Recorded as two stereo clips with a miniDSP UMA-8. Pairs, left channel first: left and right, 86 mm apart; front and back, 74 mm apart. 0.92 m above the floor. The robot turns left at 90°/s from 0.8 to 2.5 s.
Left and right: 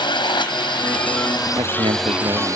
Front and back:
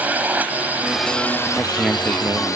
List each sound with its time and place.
0.0 s a drone: 110° left; by 2.6 s 40° right
1.6 s a man speaking: 60° right; by 2.6 s 145° right